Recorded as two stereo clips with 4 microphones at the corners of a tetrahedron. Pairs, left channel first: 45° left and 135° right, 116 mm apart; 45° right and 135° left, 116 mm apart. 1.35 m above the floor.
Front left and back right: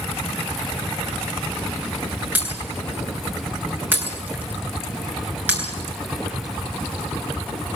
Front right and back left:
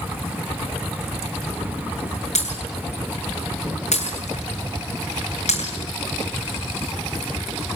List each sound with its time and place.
2.4 s breaking glass: 60° right, 7.5 m